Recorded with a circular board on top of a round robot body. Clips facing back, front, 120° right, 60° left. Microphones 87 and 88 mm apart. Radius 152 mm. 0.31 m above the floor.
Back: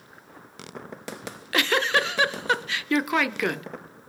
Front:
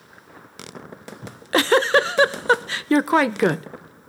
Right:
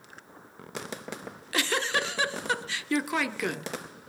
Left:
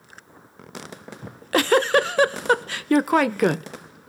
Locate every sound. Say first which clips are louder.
1.2 s a giggle: front 6 dB, left 11 dB; 45° left, 0.9 m